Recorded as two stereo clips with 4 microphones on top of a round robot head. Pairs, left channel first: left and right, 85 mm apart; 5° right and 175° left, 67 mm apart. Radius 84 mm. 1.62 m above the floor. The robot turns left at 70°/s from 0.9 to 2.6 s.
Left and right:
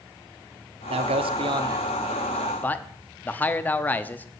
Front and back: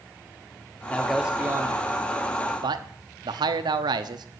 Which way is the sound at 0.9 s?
80° right.